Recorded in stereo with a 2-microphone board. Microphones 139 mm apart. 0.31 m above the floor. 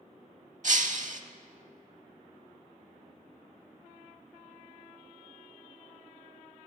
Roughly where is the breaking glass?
Right.